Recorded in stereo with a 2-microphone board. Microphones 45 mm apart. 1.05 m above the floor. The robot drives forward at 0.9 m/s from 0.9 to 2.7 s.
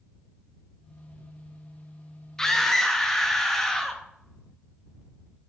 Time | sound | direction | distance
2.4 | a scream | 15° left (ahead or behind) | 0.6 m